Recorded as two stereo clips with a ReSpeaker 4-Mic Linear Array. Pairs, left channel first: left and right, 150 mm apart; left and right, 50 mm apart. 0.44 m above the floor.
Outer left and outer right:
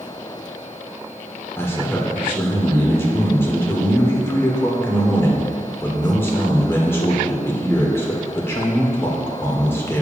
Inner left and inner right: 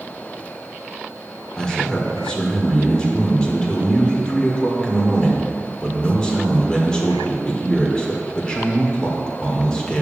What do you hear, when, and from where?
1.6 s a man speaking: 15° left (ahead or behind), 1.4 m